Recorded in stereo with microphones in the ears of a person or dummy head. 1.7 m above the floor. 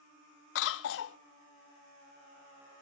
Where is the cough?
60° left (ahead or behind), 0.8 m.